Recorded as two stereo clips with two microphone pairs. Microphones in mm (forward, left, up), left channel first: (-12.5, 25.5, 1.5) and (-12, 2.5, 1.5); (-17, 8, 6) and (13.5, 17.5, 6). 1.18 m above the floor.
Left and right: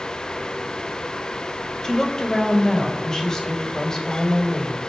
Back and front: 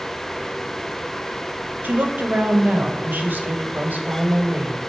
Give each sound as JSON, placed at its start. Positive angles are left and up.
{"t": 1.8, "sound": "a woman speaking", "azimuth_deg": 25, "distance_m": 1.4}